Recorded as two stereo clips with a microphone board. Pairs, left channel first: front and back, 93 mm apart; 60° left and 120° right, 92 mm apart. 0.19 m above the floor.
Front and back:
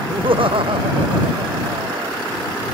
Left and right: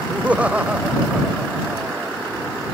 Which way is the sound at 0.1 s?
165° left.